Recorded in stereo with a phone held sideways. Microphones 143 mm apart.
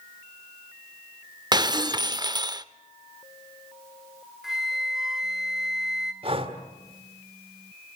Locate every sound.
1.5 s breaking glass: 30° right (ahead or behind), 0.6 m
4.4 s a flute: centre (ahead or behind), 1.1 m
6.2 s breathing: 40° right (ahead or behind), 2.0 m